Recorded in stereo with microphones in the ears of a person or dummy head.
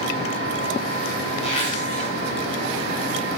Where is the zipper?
30° left (ahead or behind), 3 m.